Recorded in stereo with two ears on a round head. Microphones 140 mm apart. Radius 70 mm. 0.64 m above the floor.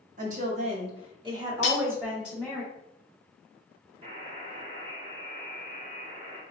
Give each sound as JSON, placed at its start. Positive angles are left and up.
{"t": 0.2, "sound": "a woman speaking", "side_deg": -55, "distance_m": 1.0}
{"t": 1.6, "sound": "cutlery clinking", "side_deg": 45, "distance_m": 0.6}
{"t": 4.0, "sound": "a buzzer", "side_deg": -35, "distance_m": 1.2}